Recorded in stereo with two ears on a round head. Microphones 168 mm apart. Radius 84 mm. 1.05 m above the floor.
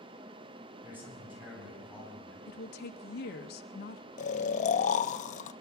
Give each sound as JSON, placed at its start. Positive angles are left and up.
{"t": 0.8, "sound": "a man speaking", "side_deg": -10, "distance_m": 8.0}
{"t": 2.5, "sound": "a woman speaking", "side_deg": 55, "distance_m": 0.7}
{"t": 4.2, "sound": "snoring", "side_deg": 40, "distance_m": 0.5}